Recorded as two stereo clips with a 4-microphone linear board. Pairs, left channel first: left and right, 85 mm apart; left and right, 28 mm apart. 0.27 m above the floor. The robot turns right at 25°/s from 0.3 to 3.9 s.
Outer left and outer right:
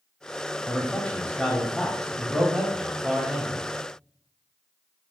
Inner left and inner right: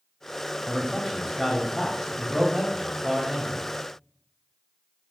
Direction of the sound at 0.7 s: 15° left (ahead or behind).